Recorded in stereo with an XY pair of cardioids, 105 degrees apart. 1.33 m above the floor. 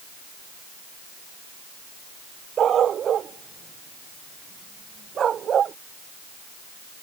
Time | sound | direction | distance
2.6 | a dog barking | 55° right | ?